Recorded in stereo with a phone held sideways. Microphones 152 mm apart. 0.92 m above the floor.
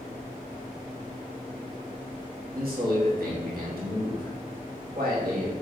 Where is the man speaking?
75° right (ahead or behind), 1.4 m.